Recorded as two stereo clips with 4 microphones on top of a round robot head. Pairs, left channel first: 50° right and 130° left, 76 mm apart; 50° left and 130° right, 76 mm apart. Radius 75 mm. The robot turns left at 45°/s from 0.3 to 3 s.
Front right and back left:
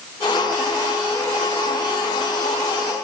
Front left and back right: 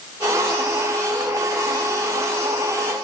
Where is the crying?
I don't hear crying.